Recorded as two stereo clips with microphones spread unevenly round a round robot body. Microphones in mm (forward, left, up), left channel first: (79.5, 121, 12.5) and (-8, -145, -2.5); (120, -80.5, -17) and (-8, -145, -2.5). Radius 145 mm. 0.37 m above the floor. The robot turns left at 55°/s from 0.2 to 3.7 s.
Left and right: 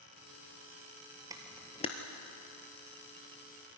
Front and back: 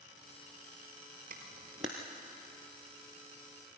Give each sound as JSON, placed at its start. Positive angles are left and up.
{"t": 1.3, "sound": "a camera shutter", "azimuth_deg": 175, "distance_m": 1.3}